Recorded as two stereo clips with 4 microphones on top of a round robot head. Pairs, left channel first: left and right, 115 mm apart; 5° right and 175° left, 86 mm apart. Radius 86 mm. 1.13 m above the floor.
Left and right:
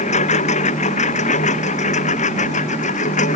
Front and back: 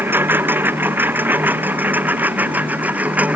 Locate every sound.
0.0 s a lawn mower: 110° left; by 3.4 s 105° left